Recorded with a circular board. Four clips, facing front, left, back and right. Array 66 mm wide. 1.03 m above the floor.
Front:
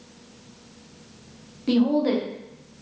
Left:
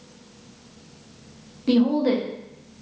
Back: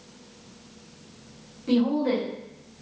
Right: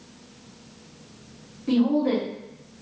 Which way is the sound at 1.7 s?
50° left.